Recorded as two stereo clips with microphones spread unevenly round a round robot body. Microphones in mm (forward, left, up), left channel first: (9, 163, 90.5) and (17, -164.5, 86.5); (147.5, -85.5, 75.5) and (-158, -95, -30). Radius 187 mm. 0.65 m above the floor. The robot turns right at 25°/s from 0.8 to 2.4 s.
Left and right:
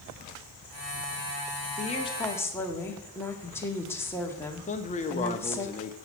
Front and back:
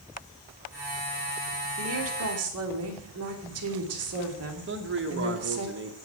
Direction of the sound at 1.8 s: 160° left.